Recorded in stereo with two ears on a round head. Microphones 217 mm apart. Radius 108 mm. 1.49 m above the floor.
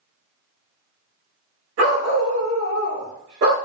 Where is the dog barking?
60° right (ahead or behind), 1.6 m; by 3.5 s 45° right (ahead or behind), 1.6 m.